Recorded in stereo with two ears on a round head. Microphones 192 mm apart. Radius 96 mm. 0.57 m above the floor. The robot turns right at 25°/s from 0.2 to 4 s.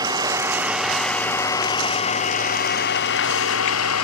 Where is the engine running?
20° right; by 4.0 s 75° left.